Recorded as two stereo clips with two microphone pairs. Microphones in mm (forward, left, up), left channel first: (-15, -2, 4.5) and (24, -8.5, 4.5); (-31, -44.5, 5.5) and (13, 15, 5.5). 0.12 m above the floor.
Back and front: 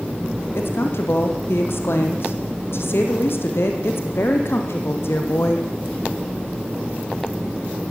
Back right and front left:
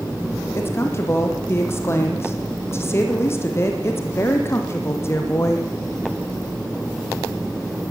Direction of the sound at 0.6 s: Straight behind.